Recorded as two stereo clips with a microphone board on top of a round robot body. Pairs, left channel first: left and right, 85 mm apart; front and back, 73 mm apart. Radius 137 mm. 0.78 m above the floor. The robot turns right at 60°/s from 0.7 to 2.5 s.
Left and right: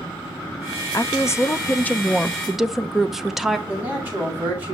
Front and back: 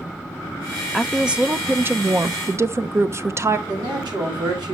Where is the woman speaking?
90° left, 0.8 m; by 3.6 s 175° right, 0.8 m.